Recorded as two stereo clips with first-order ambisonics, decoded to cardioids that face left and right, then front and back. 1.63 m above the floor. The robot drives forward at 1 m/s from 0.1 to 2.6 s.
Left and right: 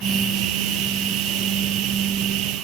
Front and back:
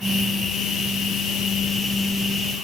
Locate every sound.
Only background noise.